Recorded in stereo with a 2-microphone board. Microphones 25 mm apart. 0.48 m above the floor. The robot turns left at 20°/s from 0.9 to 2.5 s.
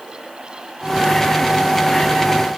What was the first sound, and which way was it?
Only background noise.